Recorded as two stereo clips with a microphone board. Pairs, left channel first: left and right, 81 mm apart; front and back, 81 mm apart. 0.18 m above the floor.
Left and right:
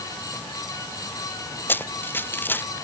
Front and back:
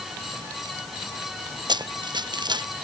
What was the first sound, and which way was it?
Running footsteps, 155° left.